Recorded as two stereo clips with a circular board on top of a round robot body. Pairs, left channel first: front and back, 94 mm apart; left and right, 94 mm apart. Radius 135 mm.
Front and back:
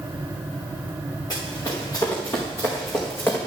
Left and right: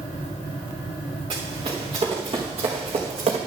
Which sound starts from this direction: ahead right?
Running footsteps, at 1.3 s.